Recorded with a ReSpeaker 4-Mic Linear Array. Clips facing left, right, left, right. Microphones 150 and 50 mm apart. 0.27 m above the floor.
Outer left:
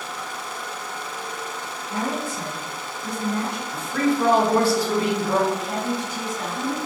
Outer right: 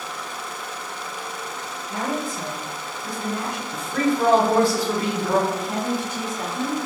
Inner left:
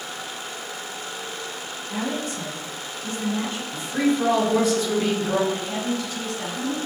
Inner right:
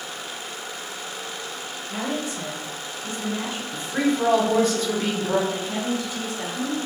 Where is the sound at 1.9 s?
20° right (ahead or behind), 1.2 m.